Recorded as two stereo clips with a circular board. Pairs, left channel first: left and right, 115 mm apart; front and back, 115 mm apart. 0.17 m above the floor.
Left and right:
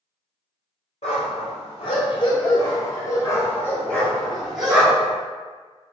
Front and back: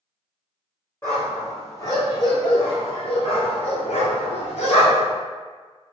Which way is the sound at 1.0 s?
70° left.